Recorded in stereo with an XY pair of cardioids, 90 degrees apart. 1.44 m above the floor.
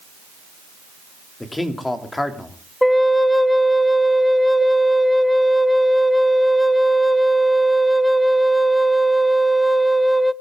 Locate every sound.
1.4 s a man speaking: 20° left, 3 m
2.8 s a flute: 10° left, 0.7 m